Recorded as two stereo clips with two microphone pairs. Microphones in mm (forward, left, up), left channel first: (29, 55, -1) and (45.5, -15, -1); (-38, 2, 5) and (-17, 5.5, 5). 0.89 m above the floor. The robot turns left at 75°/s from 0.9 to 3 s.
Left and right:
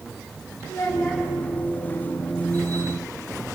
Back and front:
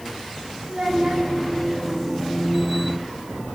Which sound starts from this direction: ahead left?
A child speaking, at 0.7 s.